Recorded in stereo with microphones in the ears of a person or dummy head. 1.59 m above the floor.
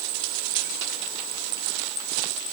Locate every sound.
Only background noise.